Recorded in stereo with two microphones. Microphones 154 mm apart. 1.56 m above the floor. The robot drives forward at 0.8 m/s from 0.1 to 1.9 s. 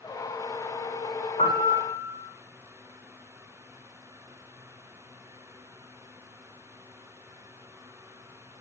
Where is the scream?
No scream in this recording.